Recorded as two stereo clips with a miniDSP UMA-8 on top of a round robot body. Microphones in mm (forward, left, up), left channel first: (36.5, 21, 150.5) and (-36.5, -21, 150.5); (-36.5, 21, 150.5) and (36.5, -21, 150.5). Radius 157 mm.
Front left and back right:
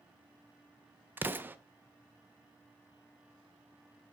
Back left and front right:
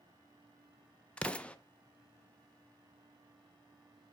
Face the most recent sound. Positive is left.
turn(degrees=-155)